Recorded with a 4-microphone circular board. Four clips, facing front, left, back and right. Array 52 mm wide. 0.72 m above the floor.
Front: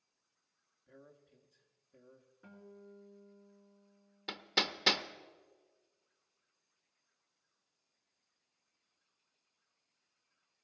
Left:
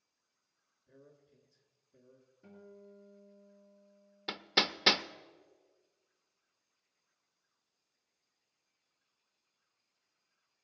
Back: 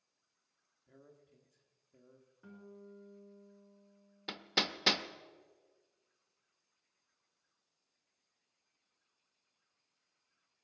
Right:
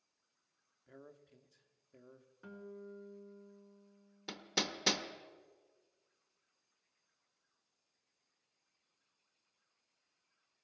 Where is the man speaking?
85° right, 1.2 m.